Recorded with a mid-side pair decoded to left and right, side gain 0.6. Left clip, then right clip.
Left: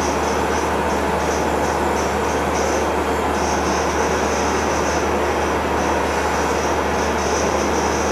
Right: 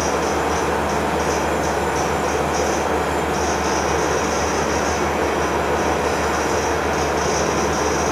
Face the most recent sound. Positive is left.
turn(degrees=-55)